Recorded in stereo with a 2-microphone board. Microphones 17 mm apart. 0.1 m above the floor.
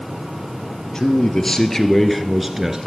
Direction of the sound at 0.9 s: 45° left (ahead or behind).